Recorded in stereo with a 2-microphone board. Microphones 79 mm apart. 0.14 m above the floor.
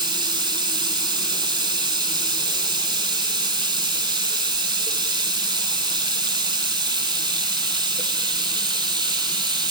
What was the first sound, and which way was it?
Running water, 65° right (ahead or behind).